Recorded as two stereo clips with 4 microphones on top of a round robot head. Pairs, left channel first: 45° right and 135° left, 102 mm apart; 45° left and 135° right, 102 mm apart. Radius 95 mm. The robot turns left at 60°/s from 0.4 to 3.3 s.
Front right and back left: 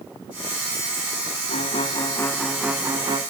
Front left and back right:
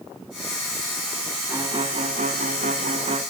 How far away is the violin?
About 1.2 m.